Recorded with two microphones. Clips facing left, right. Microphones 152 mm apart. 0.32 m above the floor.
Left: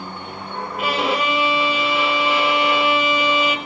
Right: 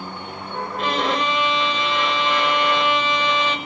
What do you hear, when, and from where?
0.8 s a violin: 10° left (ahead or behind), 0.8 m